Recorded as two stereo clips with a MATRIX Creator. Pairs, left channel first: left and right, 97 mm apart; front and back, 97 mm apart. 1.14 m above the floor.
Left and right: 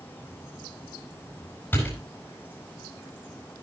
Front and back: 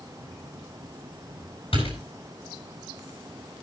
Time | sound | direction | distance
1.7 | a door slam | 20° left | 9 m